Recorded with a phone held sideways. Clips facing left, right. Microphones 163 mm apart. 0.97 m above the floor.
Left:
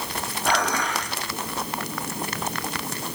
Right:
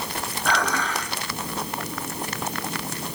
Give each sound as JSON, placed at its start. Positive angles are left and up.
{"t": 0.5, "sound": "dishes clattering", "side_deg": 10, "distance_m": 7.5}